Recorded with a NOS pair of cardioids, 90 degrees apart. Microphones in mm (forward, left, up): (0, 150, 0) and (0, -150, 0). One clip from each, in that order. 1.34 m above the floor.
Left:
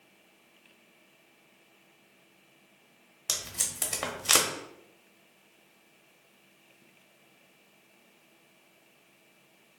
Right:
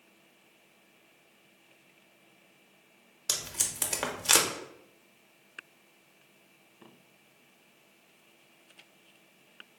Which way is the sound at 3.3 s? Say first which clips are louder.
Even; 10° right.